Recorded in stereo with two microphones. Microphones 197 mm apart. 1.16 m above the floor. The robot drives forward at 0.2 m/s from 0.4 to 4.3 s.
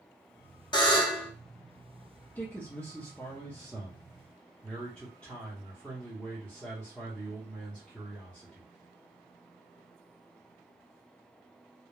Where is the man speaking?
10° left (ahead or behind), 0.5 m; by 8.7 s 5° left (ahead or behind), 0.8 m.